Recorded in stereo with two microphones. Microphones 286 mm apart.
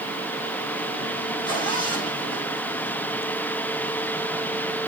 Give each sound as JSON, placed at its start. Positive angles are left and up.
{"t": 1.4, "sound": "a zipper", "side_deg": 15, "distance_m": 6.5}